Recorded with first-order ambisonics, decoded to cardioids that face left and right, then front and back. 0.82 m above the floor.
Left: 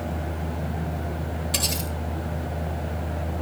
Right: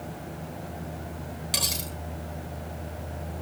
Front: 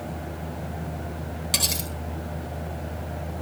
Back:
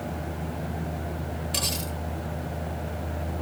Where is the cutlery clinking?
25° right, 9.5 m.